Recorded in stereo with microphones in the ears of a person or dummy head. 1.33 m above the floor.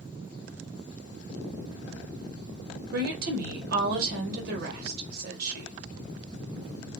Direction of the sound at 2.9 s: 55° right (ahead or behind).